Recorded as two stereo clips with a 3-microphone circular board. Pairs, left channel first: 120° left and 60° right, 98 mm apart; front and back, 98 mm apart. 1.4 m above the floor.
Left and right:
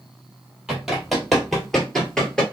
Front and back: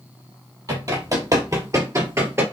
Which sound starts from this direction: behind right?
Running footsteps, at 0.7 s.